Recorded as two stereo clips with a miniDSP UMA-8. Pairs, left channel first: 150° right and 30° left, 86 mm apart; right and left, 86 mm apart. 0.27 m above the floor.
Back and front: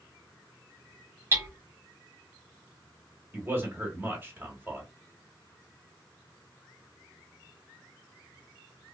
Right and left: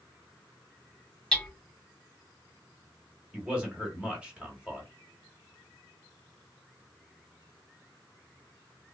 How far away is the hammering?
About 0.8 m.